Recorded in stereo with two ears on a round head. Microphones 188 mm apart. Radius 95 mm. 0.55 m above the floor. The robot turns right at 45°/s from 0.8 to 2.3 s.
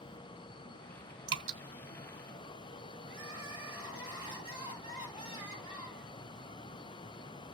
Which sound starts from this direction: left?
Crying, at 3.1 s.